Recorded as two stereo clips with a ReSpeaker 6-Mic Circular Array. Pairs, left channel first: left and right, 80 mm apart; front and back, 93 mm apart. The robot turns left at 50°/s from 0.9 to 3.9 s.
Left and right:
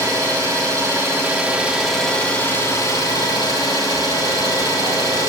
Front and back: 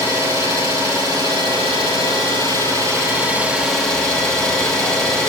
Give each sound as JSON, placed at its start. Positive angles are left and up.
{"t": 0.0, "sound": "an engine running", "azimuth_deg": -130, "distance_m": 8.0}